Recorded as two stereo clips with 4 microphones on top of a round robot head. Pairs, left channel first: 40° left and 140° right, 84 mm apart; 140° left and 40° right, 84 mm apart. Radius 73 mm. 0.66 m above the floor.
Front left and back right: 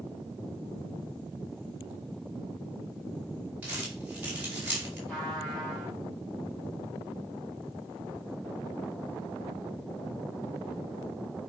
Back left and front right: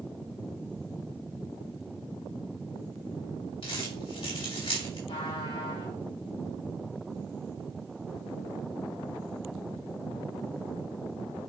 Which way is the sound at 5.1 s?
125° left.